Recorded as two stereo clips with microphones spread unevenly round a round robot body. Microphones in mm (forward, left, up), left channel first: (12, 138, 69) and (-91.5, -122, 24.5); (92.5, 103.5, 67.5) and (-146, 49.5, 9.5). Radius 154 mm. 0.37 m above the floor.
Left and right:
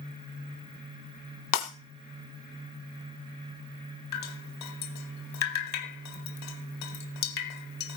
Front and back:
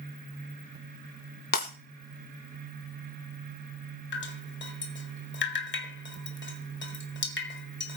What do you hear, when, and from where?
1.5 s breaking glass: 65° left, 3 m
4.1 s dripping: 55° left, 1.9 m